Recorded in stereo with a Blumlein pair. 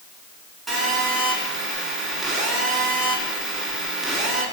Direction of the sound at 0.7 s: 10° right.